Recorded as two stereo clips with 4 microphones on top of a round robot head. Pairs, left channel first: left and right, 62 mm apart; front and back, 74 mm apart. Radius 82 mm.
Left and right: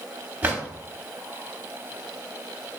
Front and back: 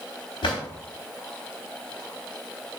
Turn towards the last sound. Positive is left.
turn(degrees=-25)